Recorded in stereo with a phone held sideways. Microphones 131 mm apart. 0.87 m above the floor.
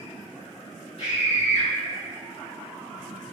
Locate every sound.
1.0 s a scream: 50° left (ahead or behind), 1.5 m